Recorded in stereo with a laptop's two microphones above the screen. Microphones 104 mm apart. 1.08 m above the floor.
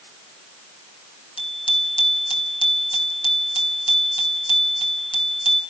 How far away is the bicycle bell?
About 4 m.